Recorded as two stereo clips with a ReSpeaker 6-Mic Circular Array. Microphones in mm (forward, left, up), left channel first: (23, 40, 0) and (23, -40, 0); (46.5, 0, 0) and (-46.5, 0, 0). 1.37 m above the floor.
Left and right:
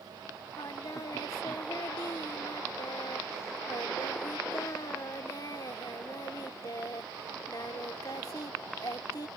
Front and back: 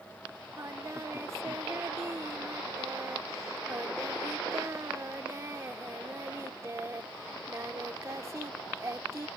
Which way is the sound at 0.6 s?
125° left.